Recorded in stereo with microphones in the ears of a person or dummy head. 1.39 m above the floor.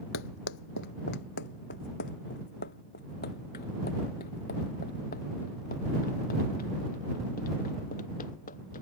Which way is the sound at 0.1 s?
70° left (ahead or behind).